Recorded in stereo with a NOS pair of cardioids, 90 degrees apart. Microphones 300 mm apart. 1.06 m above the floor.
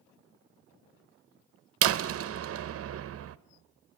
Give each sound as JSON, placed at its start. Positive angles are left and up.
{"t": 1.8, "sound": "a door slam", "azimuth_deg": -50, "distance_m": 0.8}